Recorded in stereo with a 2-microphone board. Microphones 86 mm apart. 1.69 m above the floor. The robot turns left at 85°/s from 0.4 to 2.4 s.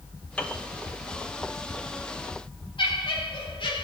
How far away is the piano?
About 1.0 m.